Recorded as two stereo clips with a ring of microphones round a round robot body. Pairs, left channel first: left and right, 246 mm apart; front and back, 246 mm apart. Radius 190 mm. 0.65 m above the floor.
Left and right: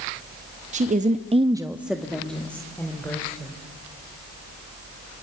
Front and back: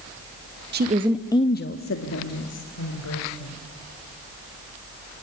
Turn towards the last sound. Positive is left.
turn(degrees=10)